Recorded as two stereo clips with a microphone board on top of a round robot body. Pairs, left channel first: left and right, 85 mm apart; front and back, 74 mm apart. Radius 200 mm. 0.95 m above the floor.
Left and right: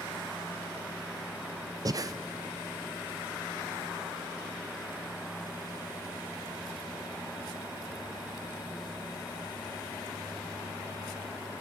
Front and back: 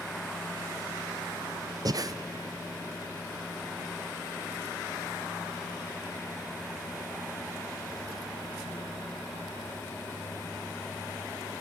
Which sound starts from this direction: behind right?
Breathing, at 1.9 s.